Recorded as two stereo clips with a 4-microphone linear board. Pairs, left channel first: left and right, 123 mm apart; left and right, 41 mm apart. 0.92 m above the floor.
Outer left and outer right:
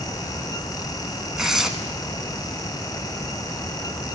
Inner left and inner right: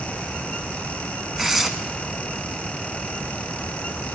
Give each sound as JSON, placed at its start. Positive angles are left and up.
{"t": 1.4, "sound": "tearing paper", "side_deg": -5, "distance_m": 1.2}